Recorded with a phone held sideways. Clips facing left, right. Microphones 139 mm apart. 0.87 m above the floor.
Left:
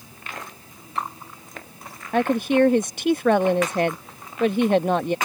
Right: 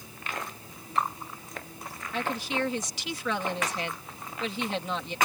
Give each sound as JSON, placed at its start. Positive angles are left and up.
{"t": 2.1, "sound": "a woman speaking", "side_deg": 55}